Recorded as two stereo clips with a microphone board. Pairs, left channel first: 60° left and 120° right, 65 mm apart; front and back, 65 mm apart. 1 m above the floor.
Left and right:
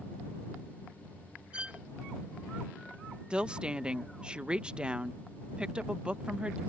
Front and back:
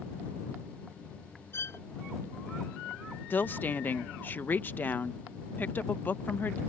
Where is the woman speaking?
50° right.